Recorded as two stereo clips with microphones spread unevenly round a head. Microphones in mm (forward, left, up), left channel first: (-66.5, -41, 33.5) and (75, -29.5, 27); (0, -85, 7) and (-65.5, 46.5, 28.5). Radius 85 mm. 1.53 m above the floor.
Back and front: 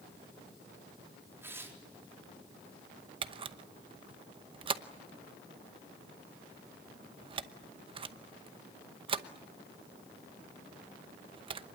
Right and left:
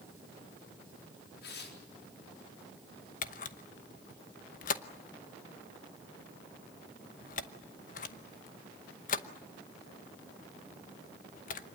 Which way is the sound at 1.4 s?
70° right.